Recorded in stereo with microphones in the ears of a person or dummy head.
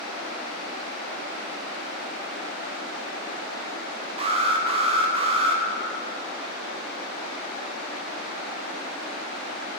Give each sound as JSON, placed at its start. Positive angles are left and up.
{"t": 4.2, "sound": "an alarm", "side_deg": -35, "distance_m": 0.8}